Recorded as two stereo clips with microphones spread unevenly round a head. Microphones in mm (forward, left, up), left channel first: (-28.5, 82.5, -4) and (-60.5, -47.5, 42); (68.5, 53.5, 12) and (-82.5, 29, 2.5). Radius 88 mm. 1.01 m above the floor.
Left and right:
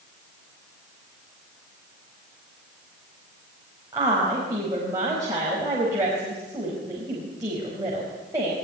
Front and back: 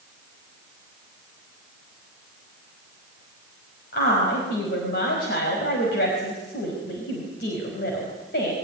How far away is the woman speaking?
About 5 m.